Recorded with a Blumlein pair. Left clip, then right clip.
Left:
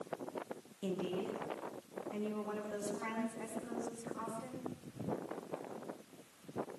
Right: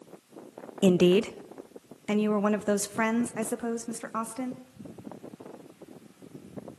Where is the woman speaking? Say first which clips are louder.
Right 17 dB; 40° right, 0.7 m; by 4.6 s 50° right, 3 m.